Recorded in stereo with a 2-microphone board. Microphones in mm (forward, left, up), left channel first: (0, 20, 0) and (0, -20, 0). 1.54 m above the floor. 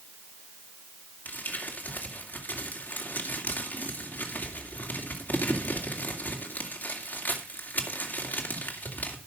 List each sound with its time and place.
1.2 s crumpling: 50° left (ahead or behind), 2.5 m